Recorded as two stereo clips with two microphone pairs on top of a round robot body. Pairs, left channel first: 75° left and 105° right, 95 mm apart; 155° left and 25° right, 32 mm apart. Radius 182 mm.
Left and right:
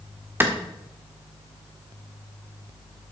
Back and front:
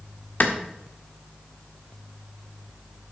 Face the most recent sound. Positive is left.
turn(degrees=-170)